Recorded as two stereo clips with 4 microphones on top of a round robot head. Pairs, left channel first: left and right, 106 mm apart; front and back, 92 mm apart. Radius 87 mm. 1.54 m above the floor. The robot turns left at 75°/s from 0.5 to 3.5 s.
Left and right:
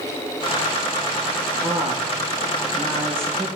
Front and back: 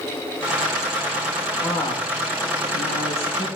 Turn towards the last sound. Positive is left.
turn(degrees=-45)